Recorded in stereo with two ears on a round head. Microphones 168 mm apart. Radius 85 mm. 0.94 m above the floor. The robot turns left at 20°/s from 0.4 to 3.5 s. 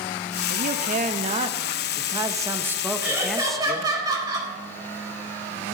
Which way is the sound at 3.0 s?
10° right (ahead or behind).